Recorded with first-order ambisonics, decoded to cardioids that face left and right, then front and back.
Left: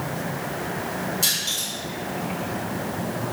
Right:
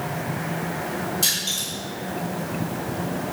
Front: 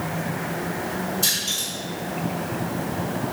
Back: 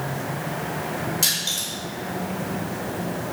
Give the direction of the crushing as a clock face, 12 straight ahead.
6 o'clock.